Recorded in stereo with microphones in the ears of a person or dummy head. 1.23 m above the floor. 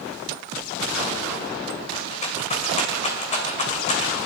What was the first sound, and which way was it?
A rattle, 35° left (ahead or behind).